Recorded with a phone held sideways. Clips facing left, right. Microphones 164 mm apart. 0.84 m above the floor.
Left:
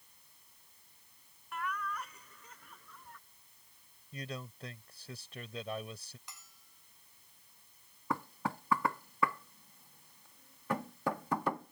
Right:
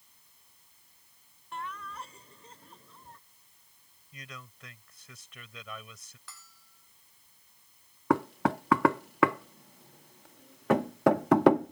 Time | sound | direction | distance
1.5 | laughter | 30° right (ahead or behind) | ?
4.1 | a man speaking | 35° left (ahead or behind) | ?
6.3 | a bell | 20° left (ahead or behind) | ?
8.1 | knocking | 75° right (ahead or behind) | ?